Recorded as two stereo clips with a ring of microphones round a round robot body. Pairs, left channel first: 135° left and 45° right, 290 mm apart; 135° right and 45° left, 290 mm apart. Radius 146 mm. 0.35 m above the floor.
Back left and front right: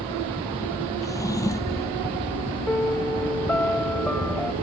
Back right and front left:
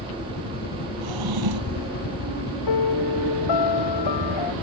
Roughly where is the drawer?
Ahead left.